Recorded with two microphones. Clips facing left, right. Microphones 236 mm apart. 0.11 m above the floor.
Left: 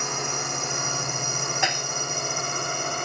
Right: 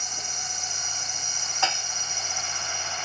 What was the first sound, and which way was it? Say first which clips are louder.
A drone: left 12 dB; 70° left (ahead or behind).